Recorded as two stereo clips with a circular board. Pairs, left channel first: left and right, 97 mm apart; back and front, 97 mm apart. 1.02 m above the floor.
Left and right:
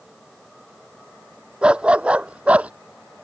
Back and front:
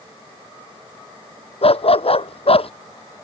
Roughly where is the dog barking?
Behind.